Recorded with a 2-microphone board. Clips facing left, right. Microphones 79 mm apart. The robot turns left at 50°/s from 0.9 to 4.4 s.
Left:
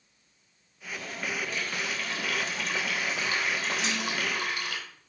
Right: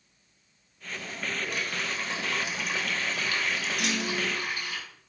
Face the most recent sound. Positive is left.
turn(degrees=-90)